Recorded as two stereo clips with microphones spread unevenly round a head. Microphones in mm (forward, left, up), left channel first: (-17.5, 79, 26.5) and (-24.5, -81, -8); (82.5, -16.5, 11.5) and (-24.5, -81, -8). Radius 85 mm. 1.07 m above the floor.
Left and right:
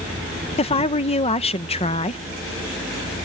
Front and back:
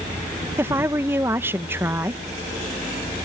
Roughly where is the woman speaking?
Behind left.